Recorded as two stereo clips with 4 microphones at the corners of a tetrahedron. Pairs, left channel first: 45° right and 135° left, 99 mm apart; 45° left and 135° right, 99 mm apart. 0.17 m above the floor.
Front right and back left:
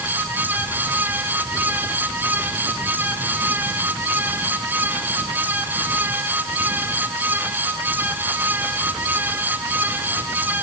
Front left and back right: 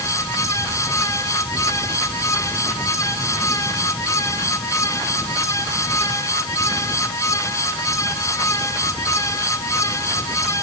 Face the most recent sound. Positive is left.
No sound to turn to.